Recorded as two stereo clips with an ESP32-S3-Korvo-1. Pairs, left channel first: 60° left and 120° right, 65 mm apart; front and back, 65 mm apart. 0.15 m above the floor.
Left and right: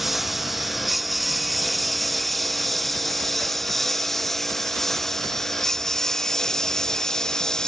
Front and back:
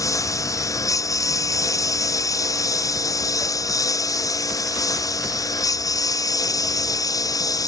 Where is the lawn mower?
30° right; by 7.7 s 20° right.